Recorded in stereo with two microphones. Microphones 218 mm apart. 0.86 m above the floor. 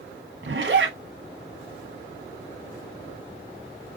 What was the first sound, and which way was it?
A zipper, 65° right (ahead or behind).